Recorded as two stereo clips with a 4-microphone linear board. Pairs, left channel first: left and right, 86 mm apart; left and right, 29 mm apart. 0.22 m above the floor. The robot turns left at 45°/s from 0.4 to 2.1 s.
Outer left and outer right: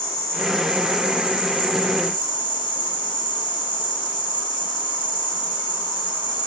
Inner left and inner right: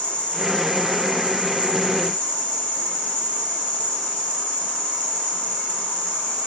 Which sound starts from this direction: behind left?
An insect, at 0.0 s.